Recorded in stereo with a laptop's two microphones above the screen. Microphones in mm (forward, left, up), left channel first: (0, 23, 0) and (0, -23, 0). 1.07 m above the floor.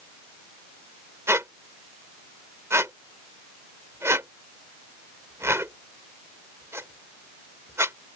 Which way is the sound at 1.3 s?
75° right (ahead or behind).